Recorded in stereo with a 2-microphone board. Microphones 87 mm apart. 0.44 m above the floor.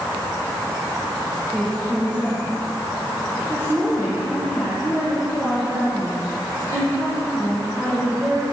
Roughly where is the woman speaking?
Right.